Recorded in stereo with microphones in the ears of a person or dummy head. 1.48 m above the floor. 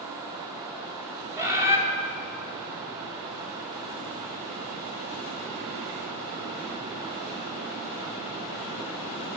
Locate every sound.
1.4 s a bird: 15° right (ahead or behind), 2 m